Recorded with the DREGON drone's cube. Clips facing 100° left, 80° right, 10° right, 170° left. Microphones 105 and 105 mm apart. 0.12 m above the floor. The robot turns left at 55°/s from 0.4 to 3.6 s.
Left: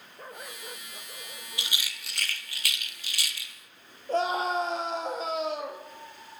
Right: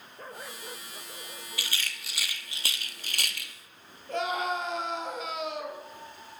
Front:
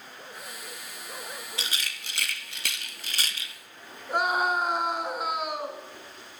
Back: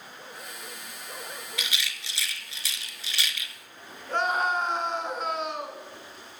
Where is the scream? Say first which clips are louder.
Left 3 dB, front 1 dB; 65° left, 1.5 m.